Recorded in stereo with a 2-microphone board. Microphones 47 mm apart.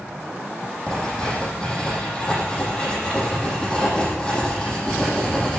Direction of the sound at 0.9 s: 20° left (ahead or behind).